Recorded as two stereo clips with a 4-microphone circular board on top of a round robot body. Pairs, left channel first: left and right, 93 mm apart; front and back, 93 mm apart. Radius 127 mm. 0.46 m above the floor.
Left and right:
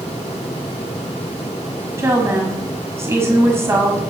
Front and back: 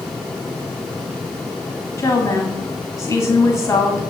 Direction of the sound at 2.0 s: 40° right.